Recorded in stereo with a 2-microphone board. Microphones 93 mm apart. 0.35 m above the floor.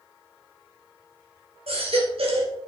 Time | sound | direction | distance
1.7 | a baby crying | 80° right | 2.5 m